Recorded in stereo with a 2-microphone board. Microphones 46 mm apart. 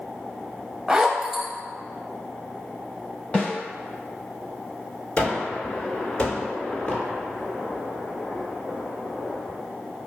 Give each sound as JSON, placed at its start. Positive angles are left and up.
{"t": 0.9, "sound": "a zipper", "side_deg": -10, "distance_m": 0.5}
{"t": 3.3, "sound": "a snare drum", "side_deg": 30, "distance_m": 1.8}
{"t": 5.2, "sound": "a gunshot", "side_deg": 30, "distance_m": 1.3}